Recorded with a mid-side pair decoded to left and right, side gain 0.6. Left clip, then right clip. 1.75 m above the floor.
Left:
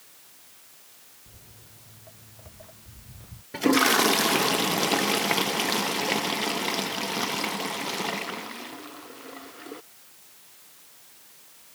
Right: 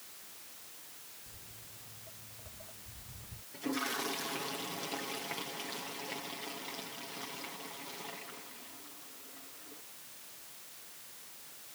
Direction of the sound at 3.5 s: 65° left.